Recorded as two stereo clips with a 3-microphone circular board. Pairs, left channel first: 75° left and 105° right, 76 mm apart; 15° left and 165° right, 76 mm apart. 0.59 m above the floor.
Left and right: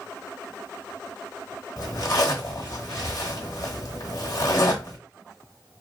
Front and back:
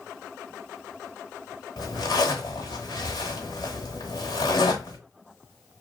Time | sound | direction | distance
1.8 | a zipper | 35° left | 1.0 m